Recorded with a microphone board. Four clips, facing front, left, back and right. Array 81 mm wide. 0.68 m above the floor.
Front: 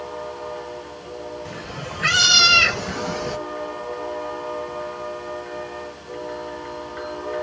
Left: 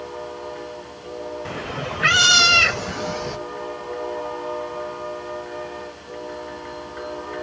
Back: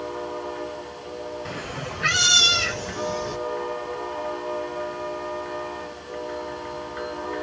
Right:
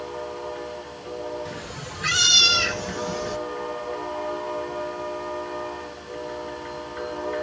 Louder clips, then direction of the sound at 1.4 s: Left 6 dB, even; 110° left.